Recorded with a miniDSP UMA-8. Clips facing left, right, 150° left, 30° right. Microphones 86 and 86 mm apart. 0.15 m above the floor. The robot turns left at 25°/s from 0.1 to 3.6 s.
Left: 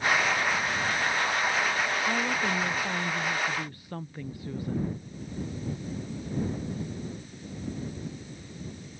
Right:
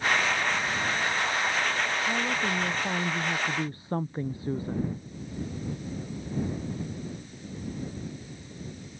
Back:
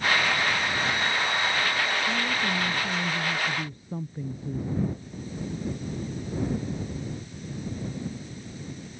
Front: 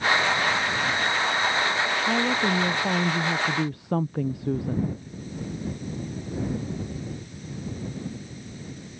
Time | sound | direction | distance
2.1 | a woman speaking | 10° left | ?